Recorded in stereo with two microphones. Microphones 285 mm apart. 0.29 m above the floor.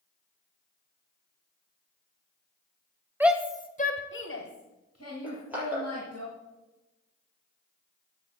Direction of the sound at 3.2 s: 5° right (ahead or behind).